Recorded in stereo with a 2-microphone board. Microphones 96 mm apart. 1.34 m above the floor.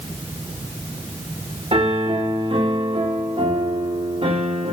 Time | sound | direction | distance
1.7 | a piano | 85° right | 3 m